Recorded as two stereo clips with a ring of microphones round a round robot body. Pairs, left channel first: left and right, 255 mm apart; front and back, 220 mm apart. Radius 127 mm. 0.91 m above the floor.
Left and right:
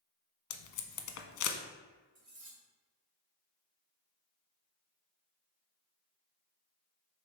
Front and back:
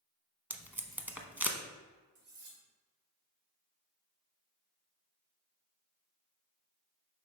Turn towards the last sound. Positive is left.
turn(degrees=-155)